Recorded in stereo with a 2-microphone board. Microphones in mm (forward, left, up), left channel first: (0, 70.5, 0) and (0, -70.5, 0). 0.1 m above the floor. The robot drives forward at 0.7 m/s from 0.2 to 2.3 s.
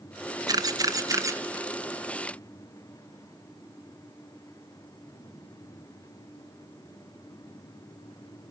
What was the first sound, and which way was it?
A camera shutter, 30° right (ahead or behind).